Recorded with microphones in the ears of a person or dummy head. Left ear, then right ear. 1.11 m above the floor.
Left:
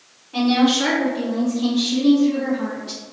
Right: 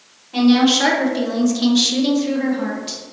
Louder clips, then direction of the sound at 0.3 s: Right 3 dB; centre (ahead or behind).